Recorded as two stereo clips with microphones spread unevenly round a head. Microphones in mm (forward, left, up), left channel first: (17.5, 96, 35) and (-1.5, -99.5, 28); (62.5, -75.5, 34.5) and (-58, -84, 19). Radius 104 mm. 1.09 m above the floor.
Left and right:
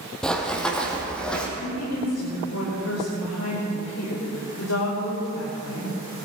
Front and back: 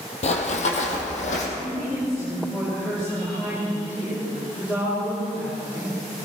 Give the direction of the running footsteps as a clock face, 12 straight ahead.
12 o'clock.